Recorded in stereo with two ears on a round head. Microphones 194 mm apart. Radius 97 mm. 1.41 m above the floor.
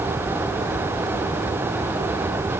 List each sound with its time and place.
Only background noise.